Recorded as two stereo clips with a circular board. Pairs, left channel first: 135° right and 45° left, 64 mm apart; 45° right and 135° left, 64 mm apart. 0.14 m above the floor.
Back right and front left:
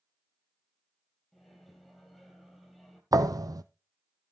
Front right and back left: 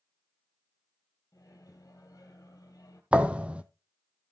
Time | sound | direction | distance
1.3 | a microwave | 45° right | 2.5 m
3.1 | a thud | 65° left | 0.7 m